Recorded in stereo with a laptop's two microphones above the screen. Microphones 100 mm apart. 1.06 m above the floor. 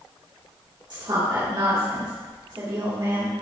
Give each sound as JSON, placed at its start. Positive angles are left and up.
{"t": 0.9, "sound": "a woman speaking", "side_deg": -50, "distance_m": 3.5}